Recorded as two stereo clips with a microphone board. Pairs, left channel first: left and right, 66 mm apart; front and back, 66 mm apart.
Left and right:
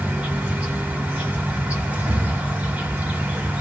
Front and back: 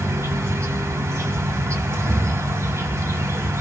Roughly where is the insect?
Behind right.